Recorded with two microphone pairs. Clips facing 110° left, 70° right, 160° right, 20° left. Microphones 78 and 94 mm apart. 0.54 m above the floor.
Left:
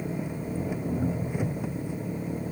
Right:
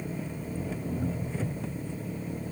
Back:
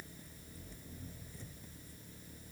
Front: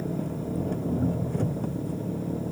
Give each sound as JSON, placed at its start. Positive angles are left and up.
{"t": 0.0, "sound": "an engine running", "azimuth_deg": 35}